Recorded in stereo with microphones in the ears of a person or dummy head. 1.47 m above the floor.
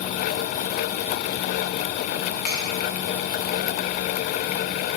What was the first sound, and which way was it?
A finger snap, 60° left (ahead or behind).